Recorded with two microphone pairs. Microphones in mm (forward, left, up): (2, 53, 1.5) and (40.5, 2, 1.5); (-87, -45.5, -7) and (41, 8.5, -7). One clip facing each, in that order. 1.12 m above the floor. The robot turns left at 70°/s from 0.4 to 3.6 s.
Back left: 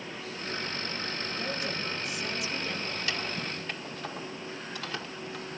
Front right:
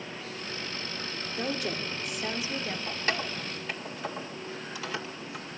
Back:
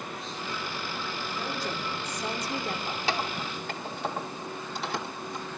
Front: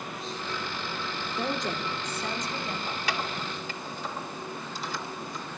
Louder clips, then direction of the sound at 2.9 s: Front right 2 dB, back 1 dB; 85° right.